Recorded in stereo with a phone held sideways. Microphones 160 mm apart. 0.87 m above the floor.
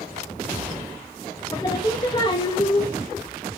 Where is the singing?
25° left (ahead or behind), 1.0 m.